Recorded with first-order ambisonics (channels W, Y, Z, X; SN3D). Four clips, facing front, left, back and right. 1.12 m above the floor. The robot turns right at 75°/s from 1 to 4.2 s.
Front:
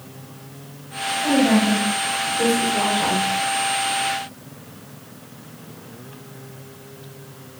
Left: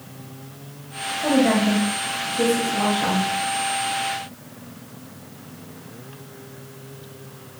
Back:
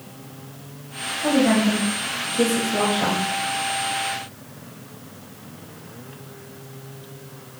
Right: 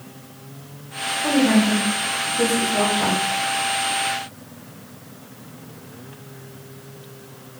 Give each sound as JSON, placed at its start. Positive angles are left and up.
{"t": 1.2, "sound": "a woman speaking", "azimuth_deg": 80, "distance_m": 1.4}